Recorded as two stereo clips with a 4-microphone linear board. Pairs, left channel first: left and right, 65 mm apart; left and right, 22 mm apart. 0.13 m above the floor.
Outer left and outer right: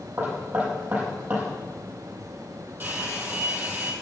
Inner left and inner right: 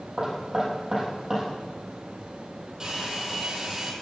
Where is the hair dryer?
30° right (ahead or behind), 3.5 m.